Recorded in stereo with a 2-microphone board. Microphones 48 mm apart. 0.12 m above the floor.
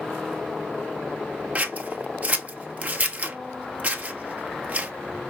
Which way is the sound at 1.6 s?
35° right (ahead or behind).